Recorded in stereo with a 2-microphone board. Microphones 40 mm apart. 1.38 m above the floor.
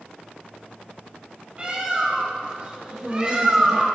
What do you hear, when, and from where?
1.6 s a bird: 35° right (ahead or behind), 1.8 m
2.9 s a woman speaking: 10° right (ahead or behind), 2.5 m